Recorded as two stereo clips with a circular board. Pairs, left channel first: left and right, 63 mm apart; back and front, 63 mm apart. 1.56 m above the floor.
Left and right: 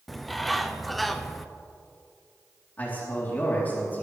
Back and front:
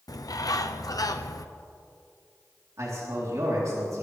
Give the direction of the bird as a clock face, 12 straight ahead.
6 o'clock.